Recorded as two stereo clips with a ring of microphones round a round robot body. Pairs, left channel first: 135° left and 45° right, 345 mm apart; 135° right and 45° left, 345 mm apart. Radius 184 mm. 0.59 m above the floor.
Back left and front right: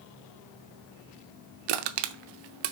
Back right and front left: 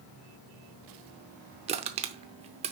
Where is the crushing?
30° right, 0.7 m.